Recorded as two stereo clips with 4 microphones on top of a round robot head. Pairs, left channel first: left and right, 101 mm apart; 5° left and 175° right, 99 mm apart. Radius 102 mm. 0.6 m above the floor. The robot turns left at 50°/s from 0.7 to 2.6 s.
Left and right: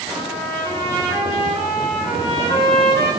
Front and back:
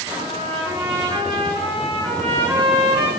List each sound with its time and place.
0.1 s a trumpet: 130° right, 7.5 m; by 3.1 s 135° left, 7.5 m